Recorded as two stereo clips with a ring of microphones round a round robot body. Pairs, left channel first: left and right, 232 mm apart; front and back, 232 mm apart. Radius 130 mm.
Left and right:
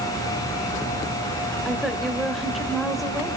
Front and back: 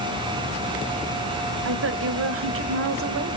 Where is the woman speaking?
Straight behind, 1.6 m.